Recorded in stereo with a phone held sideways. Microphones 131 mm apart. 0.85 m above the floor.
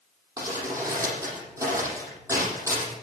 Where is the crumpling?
20° right (ahead or behind), 8 m.